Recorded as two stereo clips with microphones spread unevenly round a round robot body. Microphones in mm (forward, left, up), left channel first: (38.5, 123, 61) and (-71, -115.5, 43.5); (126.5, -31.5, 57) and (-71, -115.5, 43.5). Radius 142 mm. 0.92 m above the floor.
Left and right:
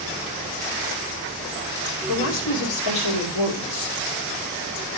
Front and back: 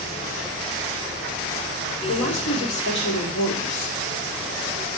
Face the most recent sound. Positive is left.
turn(degrees=70)